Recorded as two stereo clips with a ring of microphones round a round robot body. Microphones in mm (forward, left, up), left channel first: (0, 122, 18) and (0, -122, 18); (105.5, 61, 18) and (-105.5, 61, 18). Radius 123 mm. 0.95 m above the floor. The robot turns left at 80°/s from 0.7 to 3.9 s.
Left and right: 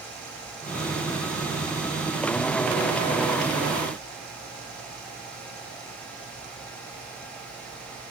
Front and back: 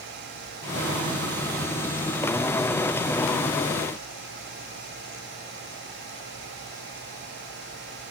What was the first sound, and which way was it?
Only background noise.